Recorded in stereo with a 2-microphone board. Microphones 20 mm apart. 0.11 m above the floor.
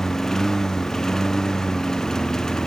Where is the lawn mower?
20° left (ahead or behind); by 2.7 s 25° left (ahead or behind).